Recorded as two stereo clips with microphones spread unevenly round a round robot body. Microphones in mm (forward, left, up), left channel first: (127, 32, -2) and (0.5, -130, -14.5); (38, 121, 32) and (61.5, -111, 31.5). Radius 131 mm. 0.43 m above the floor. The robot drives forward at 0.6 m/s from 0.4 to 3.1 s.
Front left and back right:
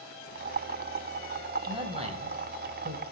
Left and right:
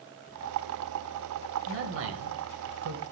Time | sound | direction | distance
1.7 | a man speaking | 70° right | 3 m